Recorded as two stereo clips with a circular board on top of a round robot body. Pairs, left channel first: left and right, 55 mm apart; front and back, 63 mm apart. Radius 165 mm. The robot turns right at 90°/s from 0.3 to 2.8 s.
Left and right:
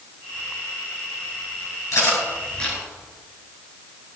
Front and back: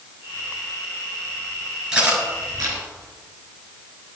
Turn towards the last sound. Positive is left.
turn(degrees=180)